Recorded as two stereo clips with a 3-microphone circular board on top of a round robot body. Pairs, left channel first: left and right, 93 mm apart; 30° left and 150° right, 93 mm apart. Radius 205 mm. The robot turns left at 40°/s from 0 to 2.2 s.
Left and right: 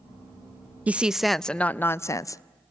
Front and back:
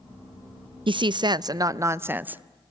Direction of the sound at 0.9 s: 165° right.